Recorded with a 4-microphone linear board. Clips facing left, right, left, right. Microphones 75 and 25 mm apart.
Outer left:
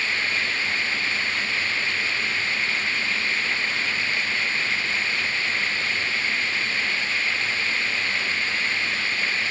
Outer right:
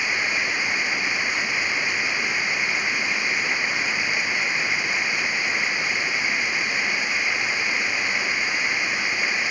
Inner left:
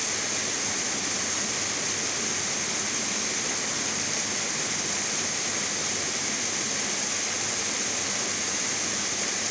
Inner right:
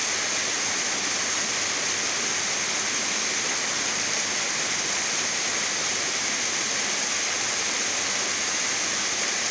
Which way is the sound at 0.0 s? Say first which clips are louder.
Outer right 1 dB, inner right 3 dB; 15° right (ahead or behind).